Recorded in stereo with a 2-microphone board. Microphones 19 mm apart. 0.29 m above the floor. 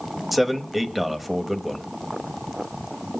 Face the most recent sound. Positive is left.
turn(degrees=-10)  # may be behind; listen again after turning